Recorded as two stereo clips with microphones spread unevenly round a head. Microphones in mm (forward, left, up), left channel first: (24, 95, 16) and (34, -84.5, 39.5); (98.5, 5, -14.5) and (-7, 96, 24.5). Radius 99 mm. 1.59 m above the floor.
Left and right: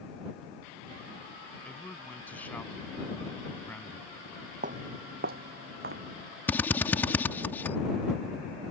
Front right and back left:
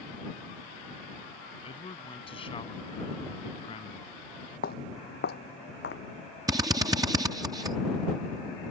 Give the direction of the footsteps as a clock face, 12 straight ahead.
2 o'clock.